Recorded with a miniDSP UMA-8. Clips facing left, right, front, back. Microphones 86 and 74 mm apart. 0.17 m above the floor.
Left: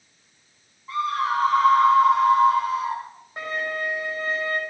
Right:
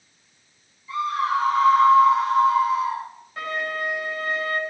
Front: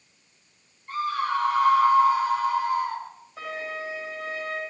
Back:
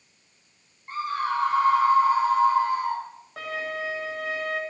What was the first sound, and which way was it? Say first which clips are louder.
A scream: right 1 dB, front 1 dB; 120° left.